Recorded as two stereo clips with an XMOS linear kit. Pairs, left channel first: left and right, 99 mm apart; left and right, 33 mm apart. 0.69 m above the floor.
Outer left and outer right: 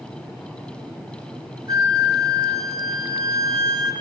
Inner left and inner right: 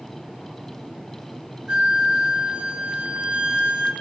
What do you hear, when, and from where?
1.7 s a flute: 45° right (ahead or behind), 1.5 m